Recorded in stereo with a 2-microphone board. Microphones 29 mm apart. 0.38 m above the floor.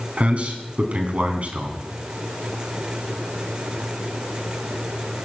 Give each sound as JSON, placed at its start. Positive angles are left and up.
{"t": 0.2, "sound": "a man speaking", "side_deg": -50, "distance_m": 3.0}